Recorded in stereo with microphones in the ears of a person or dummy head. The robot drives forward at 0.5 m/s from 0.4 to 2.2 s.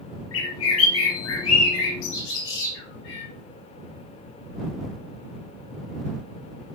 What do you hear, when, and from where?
0.3 s a bird: 75° left (ahead or behind), 1.4 m; by 3.3 s 65° left (ahead or behind), 1.5 m